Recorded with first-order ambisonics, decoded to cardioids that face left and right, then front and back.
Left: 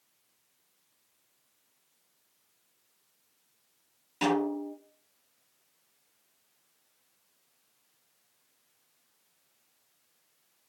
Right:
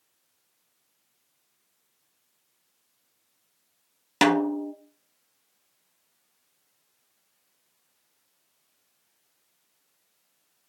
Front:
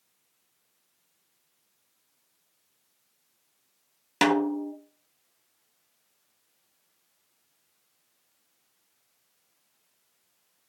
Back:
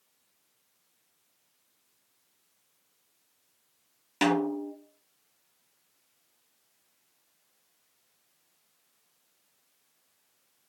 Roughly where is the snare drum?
Ahead right.